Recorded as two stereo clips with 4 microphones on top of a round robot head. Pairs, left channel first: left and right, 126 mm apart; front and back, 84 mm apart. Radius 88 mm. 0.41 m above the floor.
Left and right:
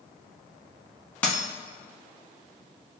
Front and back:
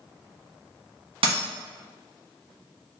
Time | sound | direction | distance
1.2 | a dropped coin | 170° left | 0.9 m